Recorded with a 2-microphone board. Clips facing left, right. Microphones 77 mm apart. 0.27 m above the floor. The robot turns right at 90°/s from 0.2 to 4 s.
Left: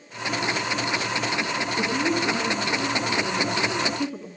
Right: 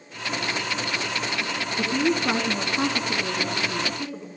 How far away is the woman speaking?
About 2.5 m.